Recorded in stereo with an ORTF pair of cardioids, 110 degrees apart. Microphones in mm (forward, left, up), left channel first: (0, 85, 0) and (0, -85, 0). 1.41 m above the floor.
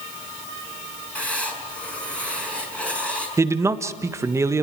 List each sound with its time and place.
1.1 s writing: 5° left, 5 m
3.4 s a man speaking: 15° right, 1.4 m